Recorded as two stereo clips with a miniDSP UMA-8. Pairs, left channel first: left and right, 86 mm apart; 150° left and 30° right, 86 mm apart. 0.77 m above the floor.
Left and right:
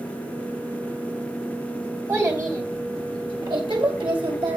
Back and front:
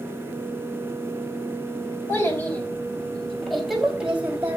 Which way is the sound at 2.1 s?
150° right.